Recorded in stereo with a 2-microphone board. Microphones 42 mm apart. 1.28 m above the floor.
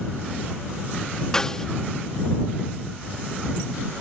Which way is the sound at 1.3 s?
15° left (ahead or behind).